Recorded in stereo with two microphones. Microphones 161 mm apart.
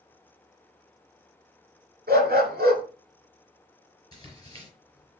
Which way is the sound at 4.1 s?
25° left (ahead or behind).